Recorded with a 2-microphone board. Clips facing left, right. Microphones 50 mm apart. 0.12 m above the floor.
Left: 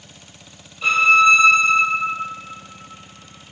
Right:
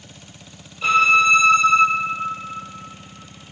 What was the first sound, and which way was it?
A violin, 5° right (ahead or behind).